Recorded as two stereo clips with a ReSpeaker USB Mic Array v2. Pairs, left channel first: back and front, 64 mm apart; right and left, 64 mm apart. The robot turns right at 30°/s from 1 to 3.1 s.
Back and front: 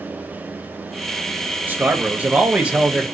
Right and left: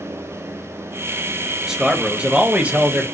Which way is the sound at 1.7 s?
15° left.